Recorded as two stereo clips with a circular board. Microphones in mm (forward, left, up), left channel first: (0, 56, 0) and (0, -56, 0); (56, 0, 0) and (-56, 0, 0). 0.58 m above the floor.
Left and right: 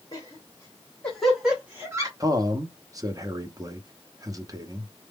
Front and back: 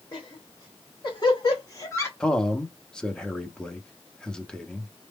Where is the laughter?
40° left, 1.6 m; by 2.1 s 50° right, 1.2 m.